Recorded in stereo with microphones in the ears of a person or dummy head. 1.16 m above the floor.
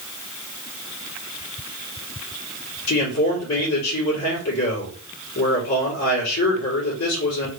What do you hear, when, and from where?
2.9 s a man speaking: 65° left (ahead or behind), 2.5 m